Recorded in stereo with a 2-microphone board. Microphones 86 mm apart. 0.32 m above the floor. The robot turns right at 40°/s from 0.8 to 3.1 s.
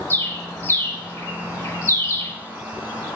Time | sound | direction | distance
0.1 | a bird | 30° left (ahead or behind) | 0.9 m